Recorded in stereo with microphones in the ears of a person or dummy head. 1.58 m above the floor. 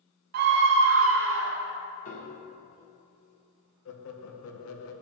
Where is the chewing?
I don't hear chewing.